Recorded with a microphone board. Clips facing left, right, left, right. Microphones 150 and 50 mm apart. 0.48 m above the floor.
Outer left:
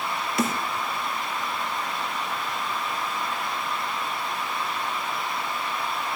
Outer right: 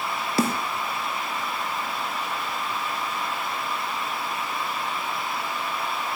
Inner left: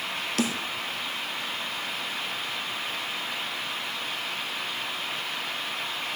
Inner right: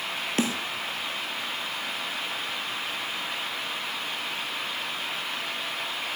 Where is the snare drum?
30° right (ahead or behind), 2.5 m.